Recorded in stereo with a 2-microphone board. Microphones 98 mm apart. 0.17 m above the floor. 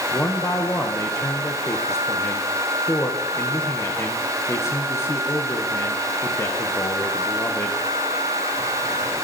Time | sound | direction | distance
0.1 | a man speaking | 30° left (ahead or behind) | 2.5 m